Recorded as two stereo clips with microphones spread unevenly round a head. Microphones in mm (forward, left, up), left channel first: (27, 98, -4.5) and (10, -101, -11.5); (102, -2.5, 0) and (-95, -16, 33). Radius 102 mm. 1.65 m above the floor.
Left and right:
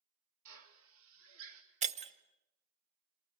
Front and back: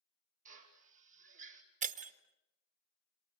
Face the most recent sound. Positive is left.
turn(degrees=-145)